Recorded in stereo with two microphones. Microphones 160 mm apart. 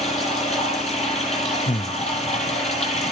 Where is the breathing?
30° left (ahead or behind), 0.8 m.